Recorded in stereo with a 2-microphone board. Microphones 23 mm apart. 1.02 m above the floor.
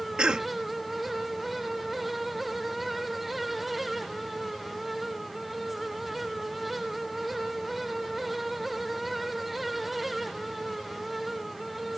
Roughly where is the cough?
Right.